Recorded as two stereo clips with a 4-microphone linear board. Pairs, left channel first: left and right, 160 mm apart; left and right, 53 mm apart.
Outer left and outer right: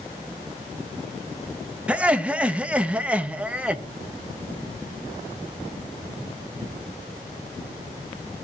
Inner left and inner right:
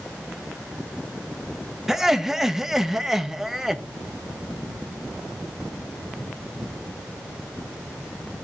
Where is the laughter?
10° right (ahead or behind), 0.9 m.